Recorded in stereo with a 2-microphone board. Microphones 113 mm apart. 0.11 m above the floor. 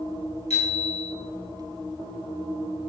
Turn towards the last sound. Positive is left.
turn(degrees=70)  # may be behind; listen again after turning